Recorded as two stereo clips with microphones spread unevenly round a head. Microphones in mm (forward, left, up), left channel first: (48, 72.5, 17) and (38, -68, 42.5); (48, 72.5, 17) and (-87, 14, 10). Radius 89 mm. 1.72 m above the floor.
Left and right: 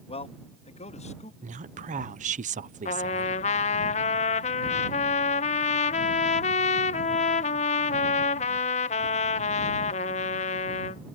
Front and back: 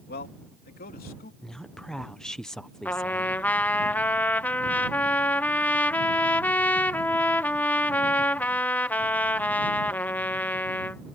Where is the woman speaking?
65° right.